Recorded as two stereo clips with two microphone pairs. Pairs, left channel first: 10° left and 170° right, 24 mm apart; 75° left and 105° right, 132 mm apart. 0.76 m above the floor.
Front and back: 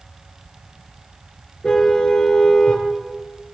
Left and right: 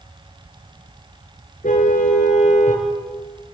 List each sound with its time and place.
1.6 s a car horn: 60° left, 4.5 m